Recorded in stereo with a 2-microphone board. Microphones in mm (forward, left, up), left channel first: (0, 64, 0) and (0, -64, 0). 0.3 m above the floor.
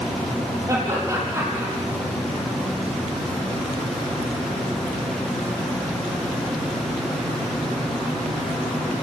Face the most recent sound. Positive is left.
turn(degrees=-20)  # may be behind; listen again after turning